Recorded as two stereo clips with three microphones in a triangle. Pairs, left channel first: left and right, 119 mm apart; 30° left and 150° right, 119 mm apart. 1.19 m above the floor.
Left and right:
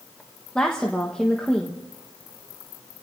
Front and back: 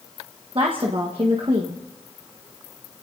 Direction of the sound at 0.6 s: 170° left.